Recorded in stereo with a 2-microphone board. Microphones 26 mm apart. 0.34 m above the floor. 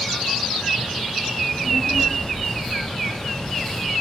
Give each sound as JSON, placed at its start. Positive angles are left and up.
{"t": 1.4, "sound": "a child speaking", "side_deg": 50, "distance_m": 4.0}